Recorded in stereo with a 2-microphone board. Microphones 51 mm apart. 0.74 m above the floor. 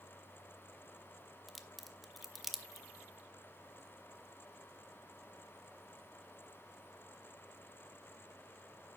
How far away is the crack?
About 0.7 m.